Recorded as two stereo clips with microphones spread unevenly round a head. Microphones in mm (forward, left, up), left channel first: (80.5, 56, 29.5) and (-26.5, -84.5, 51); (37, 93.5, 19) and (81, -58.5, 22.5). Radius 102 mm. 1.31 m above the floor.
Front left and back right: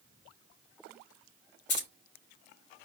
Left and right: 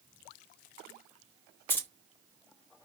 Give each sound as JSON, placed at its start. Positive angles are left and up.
{"t": 1.7, "sound": "keys jangling", "azimuth_deg": 30, "distance_m": 3.0}